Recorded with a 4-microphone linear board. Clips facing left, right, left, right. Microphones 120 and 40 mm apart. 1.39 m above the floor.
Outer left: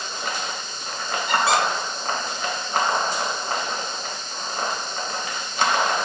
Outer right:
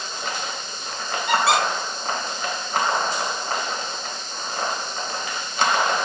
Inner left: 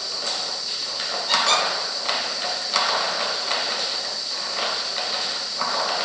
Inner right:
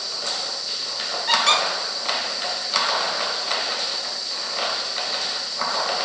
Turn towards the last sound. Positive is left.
turn(degrees=-60)  # may be behind; listen again after turning